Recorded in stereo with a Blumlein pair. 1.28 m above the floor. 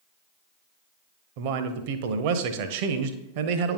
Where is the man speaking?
50° right, 0.7 m.